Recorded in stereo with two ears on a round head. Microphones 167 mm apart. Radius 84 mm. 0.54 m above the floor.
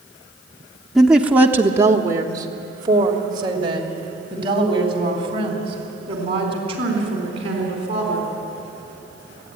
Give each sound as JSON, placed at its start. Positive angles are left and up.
{"t": 0.9, "sound": "a woman speaking", "side_deg": 0, "distance_m": 1.0}